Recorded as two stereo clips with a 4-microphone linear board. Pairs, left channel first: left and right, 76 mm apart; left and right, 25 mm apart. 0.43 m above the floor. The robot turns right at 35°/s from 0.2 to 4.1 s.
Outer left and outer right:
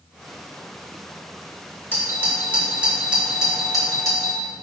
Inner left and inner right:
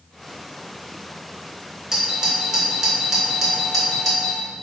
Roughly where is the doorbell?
Right.